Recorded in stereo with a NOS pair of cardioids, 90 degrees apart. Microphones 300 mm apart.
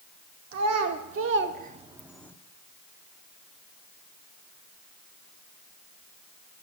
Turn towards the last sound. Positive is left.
turn(degrees=10)